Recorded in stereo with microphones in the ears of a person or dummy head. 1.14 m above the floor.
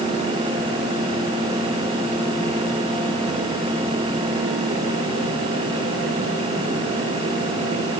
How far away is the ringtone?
I don't hear a ringtone.